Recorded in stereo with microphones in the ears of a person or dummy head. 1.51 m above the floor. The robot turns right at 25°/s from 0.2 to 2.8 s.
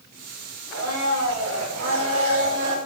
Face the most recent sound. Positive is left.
turn(degrees=-65)